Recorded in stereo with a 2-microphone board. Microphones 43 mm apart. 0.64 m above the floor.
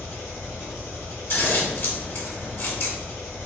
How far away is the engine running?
About 2.5 m.